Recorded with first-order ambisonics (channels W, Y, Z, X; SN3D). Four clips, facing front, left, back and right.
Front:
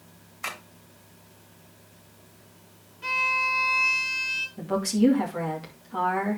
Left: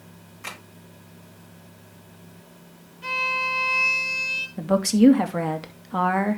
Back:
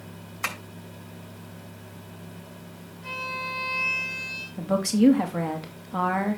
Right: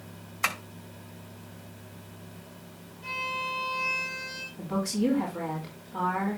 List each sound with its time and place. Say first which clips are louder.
0.4 s tapping: right 8 dB, back 3 dB; 115° right, 5 m
3.0 s a violin: left 8 dB, front 8 dB; 50° left, 3 m
4.6 s a woman speaking: left 10 dB, back 3 dB; 105° left, 2.5 m